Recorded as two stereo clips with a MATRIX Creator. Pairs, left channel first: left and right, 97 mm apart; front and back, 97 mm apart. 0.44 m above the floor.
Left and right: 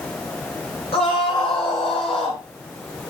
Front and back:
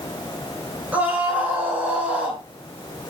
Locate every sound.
0.9 s a scream: 105° left, 7 m